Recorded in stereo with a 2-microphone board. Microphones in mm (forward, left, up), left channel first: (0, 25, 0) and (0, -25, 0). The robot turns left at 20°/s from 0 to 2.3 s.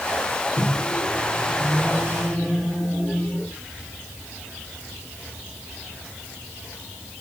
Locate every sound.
0.6 s a microwave: 65° left, 1.7 m; by 3.5 s 30° left, 1.7 m